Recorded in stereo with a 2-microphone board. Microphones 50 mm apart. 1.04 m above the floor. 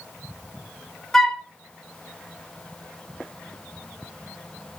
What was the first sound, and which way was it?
A flute, 10° left (ahead or behind).